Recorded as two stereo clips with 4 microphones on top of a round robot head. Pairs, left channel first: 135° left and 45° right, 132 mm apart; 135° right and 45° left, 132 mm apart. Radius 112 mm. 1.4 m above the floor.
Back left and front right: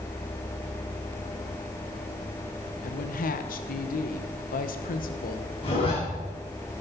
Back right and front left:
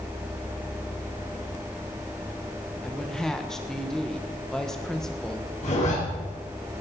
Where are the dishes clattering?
No dishes clattering in this recording.